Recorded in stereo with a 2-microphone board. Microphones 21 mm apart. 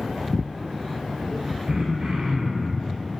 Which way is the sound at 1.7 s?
40° right (ahead or behind).